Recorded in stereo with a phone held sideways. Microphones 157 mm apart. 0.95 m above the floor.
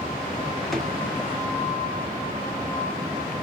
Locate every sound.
0.7 s a drawer: centre (ahead or behind), 1.5 m